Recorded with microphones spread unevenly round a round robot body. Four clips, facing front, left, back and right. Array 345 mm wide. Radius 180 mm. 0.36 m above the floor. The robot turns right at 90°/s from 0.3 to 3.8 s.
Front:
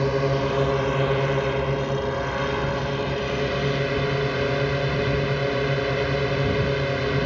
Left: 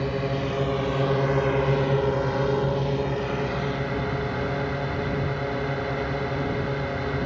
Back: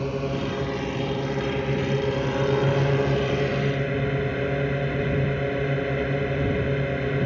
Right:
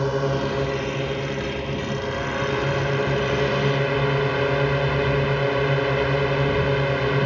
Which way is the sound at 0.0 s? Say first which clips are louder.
Right 4 dB, front 5 dB; 40° right.